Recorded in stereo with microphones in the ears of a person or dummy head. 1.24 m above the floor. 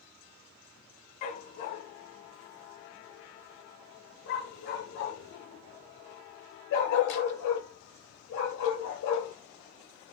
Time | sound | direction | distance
1.2 | a dog barking | 30° left (ahead or behind) | 1.7 m